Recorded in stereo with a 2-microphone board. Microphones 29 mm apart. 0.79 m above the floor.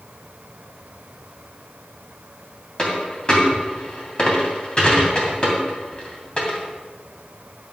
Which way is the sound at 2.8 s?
30° left (ahead or behind).